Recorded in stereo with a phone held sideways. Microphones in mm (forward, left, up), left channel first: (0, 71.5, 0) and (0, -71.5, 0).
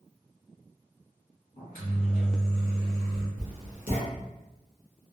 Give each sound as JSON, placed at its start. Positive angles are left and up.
{"t": 1.6, "sound": "a microwave", "side_deg": 70, "distance_m": 1.7}
{"t": 3.4, "sound": "writing", "side_deg": 70, "distance_m": 1.0}